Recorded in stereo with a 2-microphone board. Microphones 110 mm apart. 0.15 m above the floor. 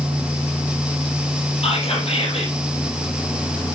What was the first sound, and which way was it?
Whispering, 65° left (ahead or behind).